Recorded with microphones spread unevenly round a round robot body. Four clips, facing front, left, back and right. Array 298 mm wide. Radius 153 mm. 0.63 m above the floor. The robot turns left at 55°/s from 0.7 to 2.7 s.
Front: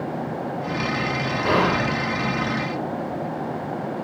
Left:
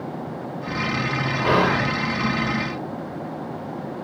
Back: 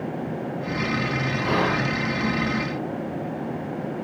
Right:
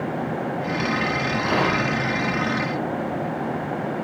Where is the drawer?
I don't hear a drawer.